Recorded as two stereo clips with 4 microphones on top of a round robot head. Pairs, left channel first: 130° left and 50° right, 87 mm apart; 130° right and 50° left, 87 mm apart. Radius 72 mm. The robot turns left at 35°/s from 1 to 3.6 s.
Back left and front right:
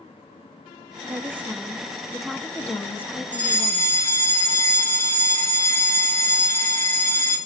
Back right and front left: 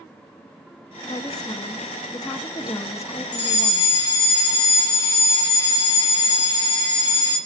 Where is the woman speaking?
105° right, 1.1 m; by 4.0 s 170° left, 1.1 m.